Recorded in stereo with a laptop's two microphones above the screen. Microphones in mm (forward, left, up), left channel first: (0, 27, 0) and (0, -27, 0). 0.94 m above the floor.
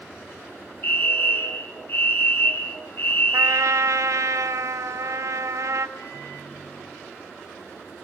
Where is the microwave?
55° left (ahead or behind), 5.5 m.